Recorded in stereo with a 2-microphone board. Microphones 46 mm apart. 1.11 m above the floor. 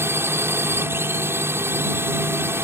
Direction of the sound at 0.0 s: 60° right (ahead or behind).